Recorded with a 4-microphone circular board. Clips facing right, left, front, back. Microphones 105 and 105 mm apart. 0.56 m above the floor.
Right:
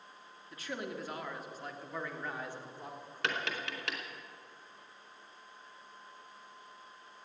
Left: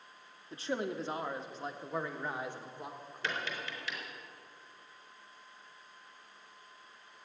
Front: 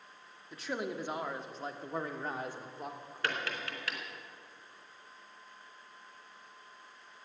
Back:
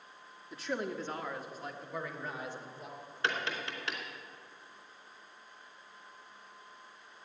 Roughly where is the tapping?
Right.